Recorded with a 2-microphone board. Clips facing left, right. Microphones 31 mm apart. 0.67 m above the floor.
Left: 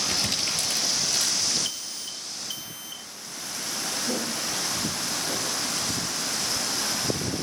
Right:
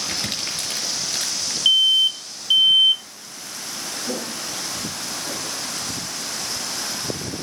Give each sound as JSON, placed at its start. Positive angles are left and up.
{"t": 0.1, "sound": "crumpling", "side_deg": -35, "distance_m": 5.0}
{"t": 1.6, "sound": "an alarm", "side_deg": -55, "distance_m": 0.5}
{"t": 4.1, "sound": "footsteps", "side_deg": -45, "distance_m": 6.5}